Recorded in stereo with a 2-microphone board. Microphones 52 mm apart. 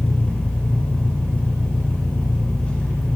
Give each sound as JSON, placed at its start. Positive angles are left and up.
{"t": 0.0, "sound": "an engine running", "side_deg": 25, "distance_m": 1.7}